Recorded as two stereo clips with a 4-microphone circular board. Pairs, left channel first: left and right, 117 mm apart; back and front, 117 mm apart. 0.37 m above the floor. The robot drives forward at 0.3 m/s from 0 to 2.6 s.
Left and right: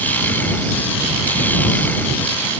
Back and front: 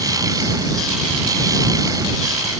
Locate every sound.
Only background noise.